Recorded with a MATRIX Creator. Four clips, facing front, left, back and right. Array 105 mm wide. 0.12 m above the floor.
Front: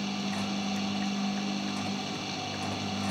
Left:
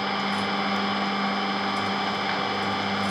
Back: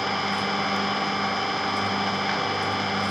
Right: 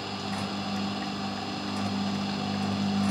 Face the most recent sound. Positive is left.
turn(degrees=145)